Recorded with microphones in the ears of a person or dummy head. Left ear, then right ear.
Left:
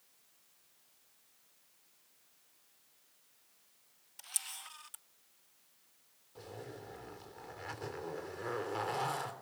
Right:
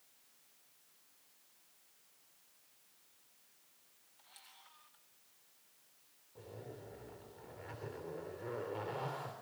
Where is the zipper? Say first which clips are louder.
Left 3 dB; 50° left (ahead or behind), 3.5 m.